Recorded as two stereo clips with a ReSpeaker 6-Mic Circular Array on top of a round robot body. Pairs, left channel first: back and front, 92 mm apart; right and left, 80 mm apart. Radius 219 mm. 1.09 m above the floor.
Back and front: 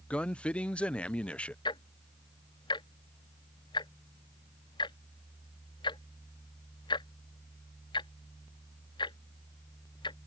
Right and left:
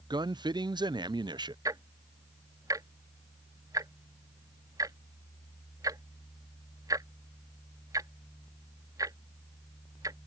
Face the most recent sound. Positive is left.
turn(degrees=140)